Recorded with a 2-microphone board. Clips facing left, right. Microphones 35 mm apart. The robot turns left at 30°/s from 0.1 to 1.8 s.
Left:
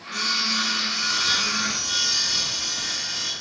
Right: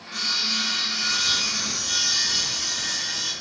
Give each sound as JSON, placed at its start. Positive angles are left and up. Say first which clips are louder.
{"t": 0.1, "sound": "sawing", "louder": "left 1 dB", "azimuth_deg": -170, "distance_m": 1.7}